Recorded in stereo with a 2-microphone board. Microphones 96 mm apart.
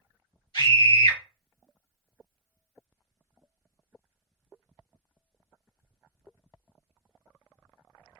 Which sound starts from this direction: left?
A scream, at 0.5 s.